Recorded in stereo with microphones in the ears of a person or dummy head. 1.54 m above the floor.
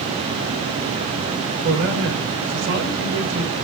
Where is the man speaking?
60° right (ahead or behind), 6 m.